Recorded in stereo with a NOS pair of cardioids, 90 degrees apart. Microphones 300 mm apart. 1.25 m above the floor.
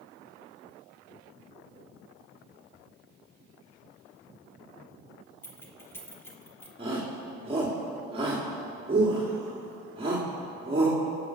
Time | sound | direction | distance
5.4 | keys jangling | 10° left | 2.5 m
6.8 | a shout | 20° right | 3 m